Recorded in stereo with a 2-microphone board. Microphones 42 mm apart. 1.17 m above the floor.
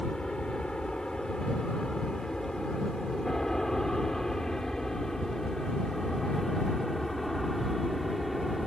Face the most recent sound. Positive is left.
turn(degrees=5)  # may be behind; listen again after turning